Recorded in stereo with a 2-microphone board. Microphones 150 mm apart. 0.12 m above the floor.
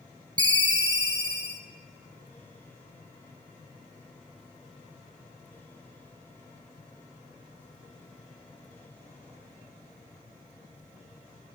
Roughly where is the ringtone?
Right.